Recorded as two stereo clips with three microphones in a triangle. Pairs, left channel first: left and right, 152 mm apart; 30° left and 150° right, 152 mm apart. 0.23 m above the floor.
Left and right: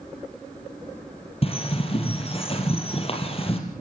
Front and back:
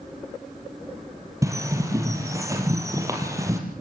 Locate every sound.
1.4 s a bird: 140° left, 4.5 m